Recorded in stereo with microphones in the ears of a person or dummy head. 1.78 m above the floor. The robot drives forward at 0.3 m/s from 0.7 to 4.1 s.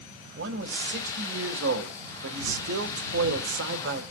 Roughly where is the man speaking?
Right.